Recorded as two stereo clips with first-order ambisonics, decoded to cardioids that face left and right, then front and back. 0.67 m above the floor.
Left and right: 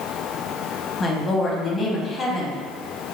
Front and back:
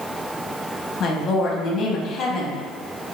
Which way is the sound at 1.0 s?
35° left.